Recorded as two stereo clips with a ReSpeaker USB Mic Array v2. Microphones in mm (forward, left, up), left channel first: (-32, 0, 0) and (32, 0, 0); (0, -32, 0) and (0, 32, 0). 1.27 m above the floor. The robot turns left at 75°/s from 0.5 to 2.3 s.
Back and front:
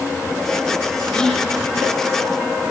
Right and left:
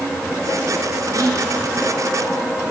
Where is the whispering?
110° left, 3 m; by 1.5 s 85° left, 3 m.